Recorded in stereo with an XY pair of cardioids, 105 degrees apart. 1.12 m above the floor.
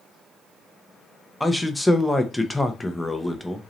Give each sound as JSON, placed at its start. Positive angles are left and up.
{"t": 1.4, "sound": "a man speaking", "azimuth_deg": 5, "distance_m": 0.6}